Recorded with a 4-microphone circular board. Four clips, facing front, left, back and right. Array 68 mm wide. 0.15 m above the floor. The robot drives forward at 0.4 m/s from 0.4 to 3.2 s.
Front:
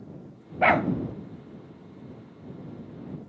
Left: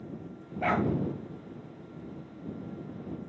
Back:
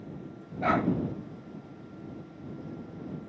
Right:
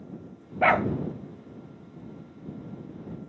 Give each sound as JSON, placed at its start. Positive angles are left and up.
{"t": 0.6, "sound": "a dog barking", "azimuth_deg": -35, "distance_m": 1.2}